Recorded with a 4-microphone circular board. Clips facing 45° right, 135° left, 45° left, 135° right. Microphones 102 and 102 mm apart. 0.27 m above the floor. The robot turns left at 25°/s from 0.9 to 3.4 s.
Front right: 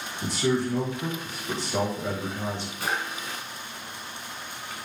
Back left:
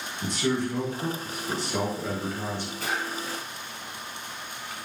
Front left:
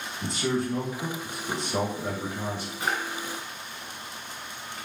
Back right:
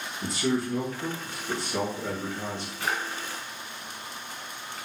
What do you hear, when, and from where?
0.2 s a man speaking: 25° left, 1.2 m; by 2.7 s 20° right, 1.2 m
2.8 s a drawer: 25° right, 1.4 m; by 3.0 s 30° right, 1.4 m